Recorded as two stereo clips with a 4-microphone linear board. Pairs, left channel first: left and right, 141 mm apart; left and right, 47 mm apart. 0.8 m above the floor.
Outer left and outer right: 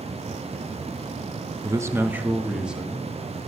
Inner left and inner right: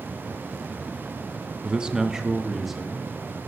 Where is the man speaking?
25° right (ahead or behind), 0.7 m; by 3.5 s centre (ahead or behind), 2 m.